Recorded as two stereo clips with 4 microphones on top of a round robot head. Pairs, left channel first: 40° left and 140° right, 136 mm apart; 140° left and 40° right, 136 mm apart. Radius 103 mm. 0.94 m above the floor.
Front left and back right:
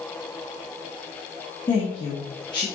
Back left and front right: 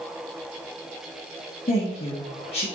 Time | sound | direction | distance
1.7 | a woman speaking | 95° left | 1.8 m